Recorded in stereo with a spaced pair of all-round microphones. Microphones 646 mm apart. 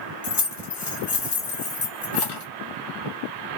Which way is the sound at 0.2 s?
40° left (ahead or behind).